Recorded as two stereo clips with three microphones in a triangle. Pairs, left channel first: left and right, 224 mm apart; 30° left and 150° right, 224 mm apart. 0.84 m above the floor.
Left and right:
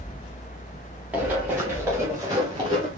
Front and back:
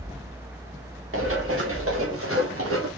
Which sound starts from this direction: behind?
Running footsteps, at 1.1 s.